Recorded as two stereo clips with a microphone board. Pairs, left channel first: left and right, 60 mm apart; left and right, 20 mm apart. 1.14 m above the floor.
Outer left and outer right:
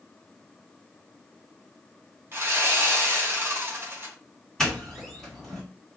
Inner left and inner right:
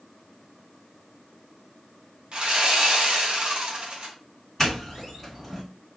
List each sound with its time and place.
2.3 s sawing: 40° right (ahead or behind), 1.0 m
4.6 s a doorbell: 5° left (ahead or behind), 2.0 m